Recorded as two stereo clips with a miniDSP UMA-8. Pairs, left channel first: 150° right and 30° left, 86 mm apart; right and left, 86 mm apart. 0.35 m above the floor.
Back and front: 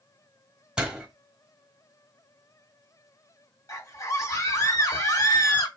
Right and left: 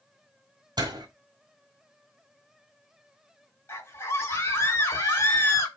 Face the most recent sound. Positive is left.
turn(degrees=-130)